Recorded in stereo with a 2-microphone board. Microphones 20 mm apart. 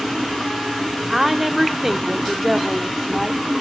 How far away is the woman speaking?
About 1.1 m.